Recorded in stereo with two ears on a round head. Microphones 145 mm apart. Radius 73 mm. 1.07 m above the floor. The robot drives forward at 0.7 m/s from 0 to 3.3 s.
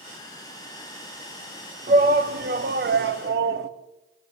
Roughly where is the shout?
Right.